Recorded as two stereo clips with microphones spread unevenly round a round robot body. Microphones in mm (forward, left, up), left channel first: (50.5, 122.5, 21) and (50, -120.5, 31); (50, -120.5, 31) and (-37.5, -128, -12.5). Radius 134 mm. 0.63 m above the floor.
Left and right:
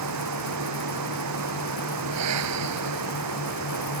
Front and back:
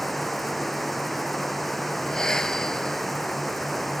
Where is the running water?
85° right.